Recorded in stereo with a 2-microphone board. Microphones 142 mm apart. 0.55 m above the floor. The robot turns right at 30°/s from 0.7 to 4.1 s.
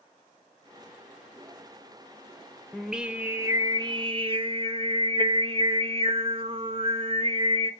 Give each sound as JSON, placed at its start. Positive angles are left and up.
{"t": 2.7, "sound": "singing", "azimuth_deg": 180, "distance_m": 0.7}